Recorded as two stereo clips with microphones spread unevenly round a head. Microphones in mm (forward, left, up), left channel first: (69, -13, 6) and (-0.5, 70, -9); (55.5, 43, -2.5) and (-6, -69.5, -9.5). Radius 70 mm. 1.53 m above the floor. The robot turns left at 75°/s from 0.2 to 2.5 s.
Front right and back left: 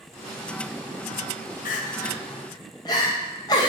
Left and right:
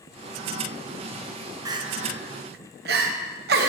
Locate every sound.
1.6 s crying: 50° right, 0.9 m; by 3.7 s 115° right, 0.9 m